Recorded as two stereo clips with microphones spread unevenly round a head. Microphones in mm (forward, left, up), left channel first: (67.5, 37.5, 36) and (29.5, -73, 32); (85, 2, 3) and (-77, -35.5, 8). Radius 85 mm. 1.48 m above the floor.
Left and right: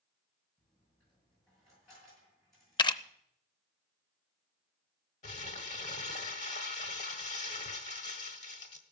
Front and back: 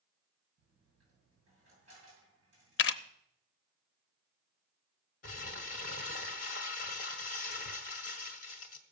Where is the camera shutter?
20° left, 0.6 m.